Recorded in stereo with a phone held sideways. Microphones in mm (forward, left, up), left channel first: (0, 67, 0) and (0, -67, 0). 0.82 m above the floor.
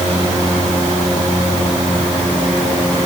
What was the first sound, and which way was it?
Only background noise.